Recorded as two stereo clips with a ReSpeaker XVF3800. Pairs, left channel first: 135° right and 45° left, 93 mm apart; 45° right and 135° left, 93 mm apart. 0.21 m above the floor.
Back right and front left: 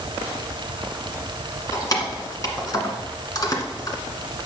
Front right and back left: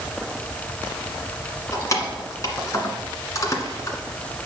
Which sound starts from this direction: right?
Keys jangling, at 1.7 s.